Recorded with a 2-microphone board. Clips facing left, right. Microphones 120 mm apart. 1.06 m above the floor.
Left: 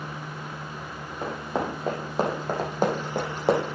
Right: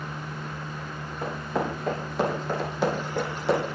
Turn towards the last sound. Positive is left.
turn(degrees=65)  # may be behind; listen again after turning